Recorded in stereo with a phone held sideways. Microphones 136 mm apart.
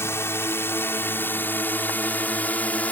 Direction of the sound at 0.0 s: 20° left (ahead or behind).